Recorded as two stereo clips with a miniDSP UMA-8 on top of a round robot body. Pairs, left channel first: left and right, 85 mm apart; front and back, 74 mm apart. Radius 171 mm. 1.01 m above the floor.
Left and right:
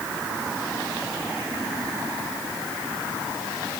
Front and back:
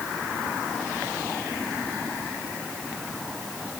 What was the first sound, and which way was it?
Only background noise.